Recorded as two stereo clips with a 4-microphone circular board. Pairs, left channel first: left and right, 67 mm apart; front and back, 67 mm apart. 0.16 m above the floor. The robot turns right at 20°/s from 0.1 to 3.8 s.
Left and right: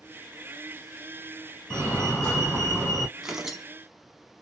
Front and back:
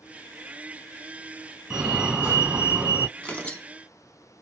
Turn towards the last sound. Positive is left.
turn(degrees=-10)